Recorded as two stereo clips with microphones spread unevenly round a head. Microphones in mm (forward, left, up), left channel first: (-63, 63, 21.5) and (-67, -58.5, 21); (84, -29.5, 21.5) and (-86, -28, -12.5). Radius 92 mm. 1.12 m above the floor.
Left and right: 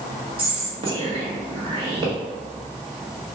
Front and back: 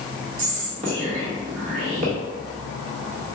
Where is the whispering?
135° right, 1.2 m.